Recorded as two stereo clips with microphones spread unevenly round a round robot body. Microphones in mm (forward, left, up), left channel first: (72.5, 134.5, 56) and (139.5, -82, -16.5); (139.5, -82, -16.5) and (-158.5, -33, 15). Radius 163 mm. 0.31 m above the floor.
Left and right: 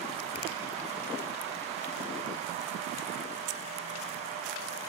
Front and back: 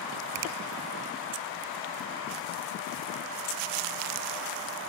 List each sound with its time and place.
0.3 s a finger snap: 160° left, 1.9 m